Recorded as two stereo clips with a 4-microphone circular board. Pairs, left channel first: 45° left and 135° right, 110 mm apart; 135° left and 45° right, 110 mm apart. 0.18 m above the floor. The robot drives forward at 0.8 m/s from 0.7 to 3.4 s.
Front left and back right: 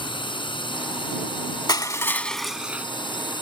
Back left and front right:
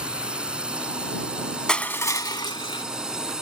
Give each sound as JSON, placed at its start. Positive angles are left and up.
{"t": 0.0, "sound": "a drone", "azimuth_deg": 35}
{"t": 1.7, "sound": "crushing", "azimuth_deg": 55}